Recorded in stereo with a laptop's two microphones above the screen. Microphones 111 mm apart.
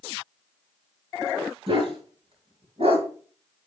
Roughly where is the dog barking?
Right.